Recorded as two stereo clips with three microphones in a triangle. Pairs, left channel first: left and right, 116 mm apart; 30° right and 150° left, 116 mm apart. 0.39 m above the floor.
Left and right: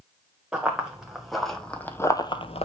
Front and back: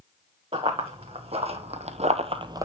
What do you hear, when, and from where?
0.5 s running footsteps: 170° right, 2.5 m; by 2.6 s 95° left, 0.7 m